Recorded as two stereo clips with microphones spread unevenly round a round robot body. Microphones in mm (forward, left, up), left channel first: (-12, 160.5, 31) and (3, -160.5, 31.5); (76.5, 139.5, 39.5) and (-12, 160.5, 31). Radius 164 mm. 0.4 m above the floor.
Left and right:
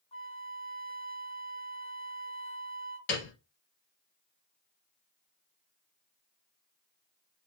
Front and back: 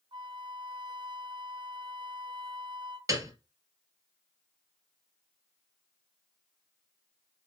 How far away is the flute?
About 0.9 m.